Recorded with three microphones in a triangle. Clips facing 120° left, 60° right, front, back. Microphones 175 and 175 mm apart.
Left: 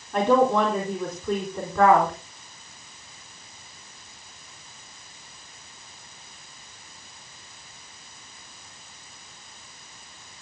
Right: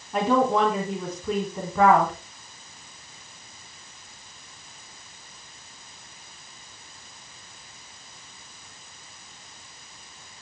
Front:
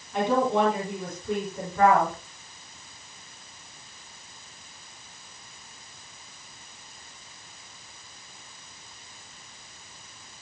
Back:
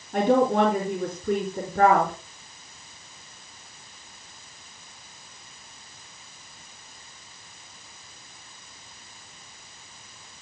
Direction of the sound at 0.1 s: 145° right.